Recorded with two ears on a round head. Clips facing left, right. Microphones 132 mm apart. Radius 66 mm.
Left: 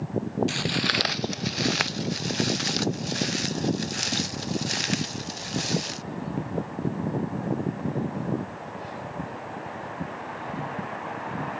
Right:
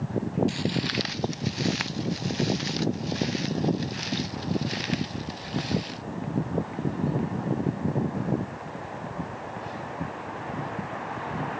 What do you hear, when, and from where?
0.5 s footsteps: 70° left (ahead or behind); by 6.0 s 55° left (ahead or behind)